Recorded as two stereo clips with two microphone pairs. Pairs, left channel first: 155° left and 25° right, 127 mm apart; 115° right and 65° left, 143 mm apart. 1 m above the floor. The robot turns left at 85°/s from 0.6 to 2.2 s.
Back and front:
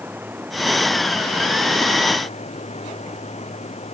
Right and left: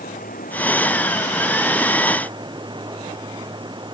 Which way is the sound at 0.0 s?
100° right.